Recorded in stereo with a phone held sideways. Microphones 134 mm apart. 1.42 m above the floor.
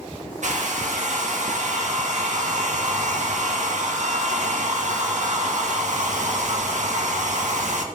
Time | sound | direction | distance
0.4 | a hair dryer | 65° right (ahead or behind) | 2 m